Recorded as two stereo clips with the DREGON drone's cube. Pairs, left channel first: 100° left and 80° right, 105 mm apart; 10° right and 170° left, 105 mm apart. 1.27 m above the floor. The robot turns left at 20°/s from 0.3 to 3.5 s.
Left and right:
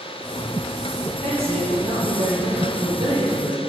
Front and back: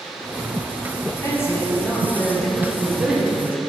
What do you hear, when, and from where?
1.0 s a man speaking: 70° right, 1.3 m; by 3.6 s 120° right, 1.3 m